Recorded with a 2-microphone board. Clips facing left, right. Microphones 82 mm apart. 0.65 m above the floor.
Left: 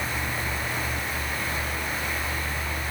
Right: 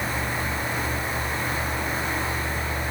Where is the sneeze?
No sneeze in this recording.